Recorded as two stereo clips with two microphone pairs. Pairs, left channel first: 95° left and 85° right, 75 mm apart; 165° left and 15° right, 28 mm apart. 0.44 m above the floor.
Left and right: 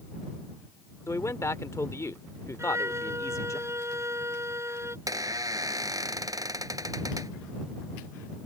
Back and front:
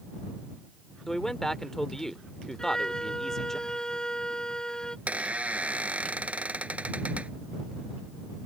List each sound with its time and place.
1.1 s a man speaking: 95° left
2.6 s a violin: 130° right
5.1 s a squeak: 50° right